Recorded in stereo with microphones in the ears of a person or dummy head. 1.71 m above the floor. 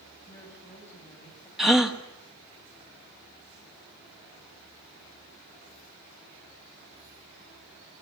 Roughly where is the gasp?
Centre.